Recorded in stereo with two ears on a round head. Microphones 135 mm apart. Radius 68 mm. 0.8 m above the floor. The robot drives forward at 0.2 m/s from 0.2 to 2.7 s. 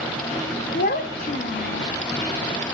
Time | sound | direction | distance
0.7 | a child speaking | 55° left (ahead or behind) | 0.5 m